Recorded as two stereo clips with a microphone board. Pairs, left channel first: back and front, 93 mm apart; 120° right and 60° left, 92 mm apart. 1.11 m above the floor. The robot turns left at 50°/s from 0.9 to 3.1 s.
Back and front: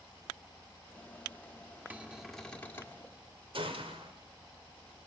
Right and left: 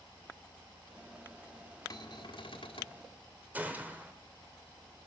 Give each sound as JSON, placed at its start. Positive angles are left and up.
{"t": 1.9, "sound": "a cupboard door", "azimuth_deg": -70, "distance_m": 1.4}
{"t": 3.5, "sound": "a gunshot", "azimuth_deg": -10, "distance_m": 2.5}